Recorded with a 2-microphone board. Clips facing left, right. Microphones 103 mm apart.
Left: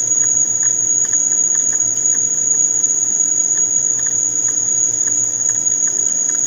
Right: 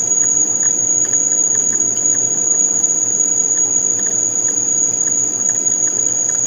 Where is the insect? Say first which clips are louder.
Right 5 dB; 10° right (ahead or behind).